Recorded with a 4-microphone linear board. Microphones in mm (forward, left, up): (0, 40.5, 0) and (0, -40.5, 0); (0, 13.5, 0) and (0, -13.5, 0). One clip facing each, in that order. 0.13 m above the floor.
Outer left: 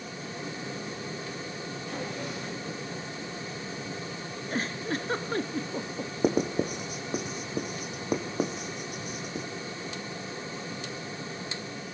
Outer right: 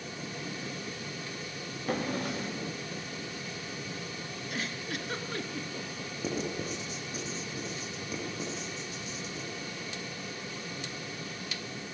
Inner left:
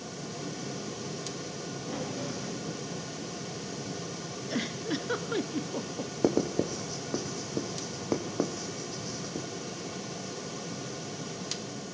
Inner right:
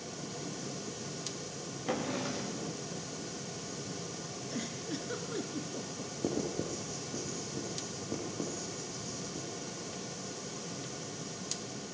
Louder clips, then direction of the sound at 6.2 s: Outer left 8 dB, inner left 8 dB; 60° left (ahead or behind).